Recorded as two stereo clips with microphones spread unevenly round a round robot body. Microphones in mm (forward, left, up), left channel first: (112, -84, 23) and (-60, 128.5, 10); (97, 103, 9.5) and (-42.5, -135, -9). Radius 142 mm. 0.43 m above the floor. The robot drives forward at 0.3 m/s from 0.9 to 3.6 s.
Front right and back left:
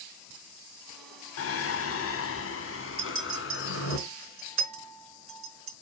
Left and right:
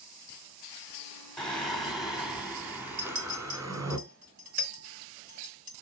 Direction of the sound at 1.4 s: 30° right.